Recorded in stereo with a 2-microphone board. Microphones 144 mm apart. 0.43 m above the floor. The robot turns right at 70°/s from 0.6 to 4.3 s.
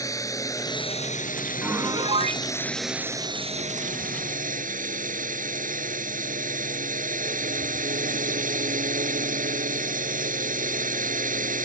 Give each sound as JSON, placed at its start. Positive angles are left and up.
{"t": 0.0, "sound": "a drone", "azimuth_deg": 25}
{"t": 1.6, "sound": "a piano", "azimuth_deg": -170}